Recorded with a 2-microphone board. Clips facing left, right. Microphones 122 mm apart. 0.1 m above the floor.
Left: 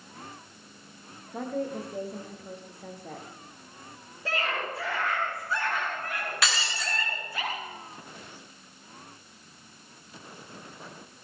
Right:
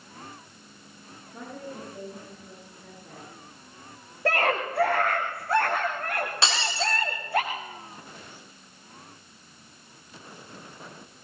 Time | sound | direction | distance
1.3 | a woman speaking | 80° left | 6.5 m
4.2 | a scream | 65° right (ahead or behind) | 6.5 m
6.4 | breaking glass | 30° right (ahead or behind) | 6 m